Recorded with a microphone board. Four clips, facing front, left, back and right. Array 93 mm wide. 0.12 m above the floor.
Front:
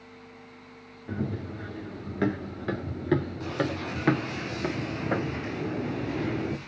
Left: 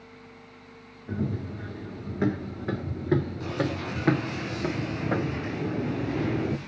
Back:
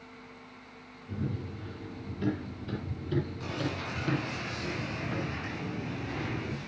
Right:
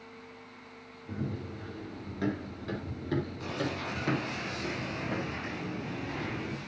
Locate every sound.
1.1 s running footsteps: 25° left, 5 m; by 6.6 s 65° left, 0.9 m